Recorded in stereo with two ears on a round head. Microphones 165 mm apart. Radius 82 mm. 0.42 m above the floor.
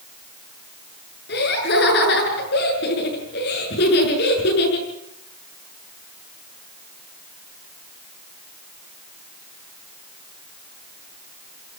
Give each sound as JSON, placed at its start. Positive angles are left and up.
{"t": 1.3, "sound": "laughter", "side_deg": 65, "distance_m": 7.0}